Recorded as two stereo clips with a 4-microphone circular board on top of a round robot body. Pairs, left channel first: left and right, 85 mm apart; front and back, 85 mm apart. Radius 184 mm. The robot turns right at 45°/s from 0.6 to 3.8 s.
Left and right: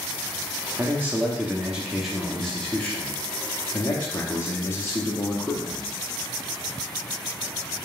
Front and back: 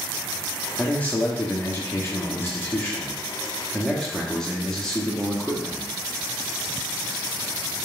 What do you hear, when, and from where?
0.8 s a man speaking: 60° right, 0.9 m; by 5.9 s 75° left, 0.9 m